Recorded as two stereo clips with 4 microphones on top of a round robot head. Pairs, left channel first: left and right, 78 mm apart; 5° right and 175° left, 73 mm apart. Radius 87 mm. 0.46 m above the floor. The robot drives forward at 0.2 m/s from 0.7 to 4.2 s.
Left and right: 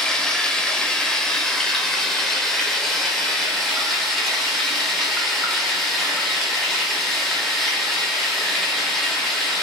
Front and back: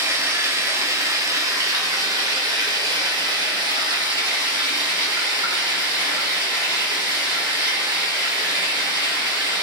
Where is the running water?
165° left, 0.7 m; by 9.6 s 175° left, 1.3 m.